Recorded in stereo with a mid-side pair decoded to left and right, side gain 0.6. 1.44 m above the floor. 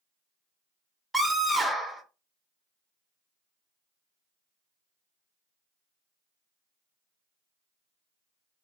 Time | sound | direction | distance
1.1 | a scream | 5° right | 0.9 m